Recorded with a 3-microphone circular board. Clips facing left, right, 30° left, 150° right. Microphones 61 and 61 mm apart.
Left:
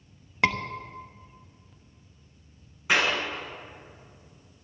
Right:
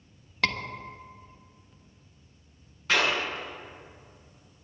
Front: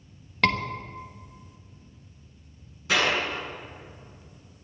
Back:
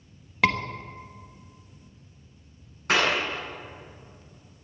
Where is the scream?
135° left, 1.1 m.